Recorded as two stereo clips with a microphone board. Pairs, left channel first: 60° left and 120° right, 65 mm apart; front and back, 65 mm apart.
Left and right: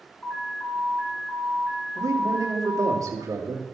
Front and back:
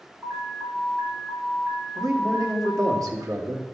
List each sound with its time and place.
0.2 s an alarm: 120° left, 3.5 m
1.9 s a man speaking: 150° right, 2.5 m